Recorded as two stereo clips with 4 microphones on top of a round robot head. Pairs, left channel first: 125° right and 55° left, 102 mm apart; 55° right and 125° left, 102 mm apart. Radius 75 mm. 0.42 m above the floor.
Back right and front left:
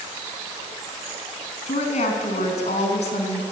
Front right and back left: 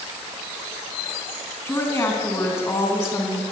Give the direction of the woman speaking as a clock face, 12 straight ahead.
4 o'clock.